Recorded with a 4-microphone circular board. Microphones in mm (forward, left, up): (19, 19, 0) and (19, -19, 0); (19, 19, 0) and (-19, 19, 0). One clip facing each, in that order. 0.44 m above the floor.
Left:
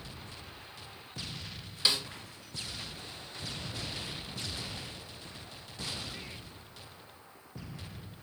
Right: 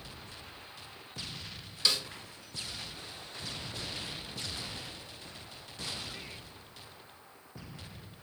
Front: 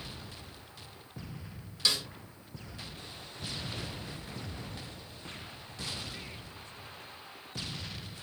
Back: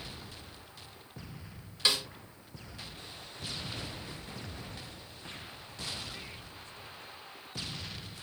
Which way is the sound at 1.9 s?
135° left.